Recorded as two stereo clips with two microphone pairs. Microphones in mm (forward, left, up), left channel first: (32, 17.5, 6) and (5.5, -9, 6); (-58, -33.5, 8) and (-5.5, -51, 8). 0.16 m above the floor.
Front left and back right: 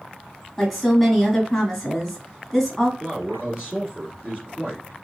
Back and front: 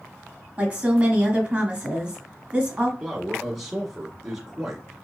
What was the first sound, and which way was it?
A woman speaking, 40° right.